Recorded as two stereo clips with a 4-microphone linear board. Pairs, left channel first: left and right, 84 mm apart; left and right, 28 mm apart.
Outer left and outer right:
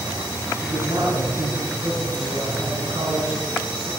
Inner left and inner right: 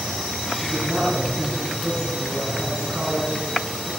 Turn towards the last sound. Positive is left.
turn(degrees=-65)  # may be behind; listen again after turning